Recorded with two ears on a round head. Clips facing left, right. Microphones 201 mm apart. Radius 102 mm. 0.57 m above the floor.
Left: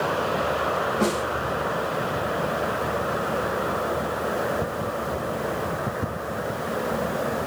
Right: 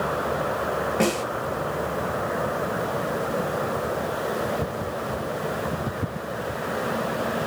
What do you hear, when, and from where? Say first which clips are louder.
1.0 s a snare drum: right 1 dB; 80° right, 4 m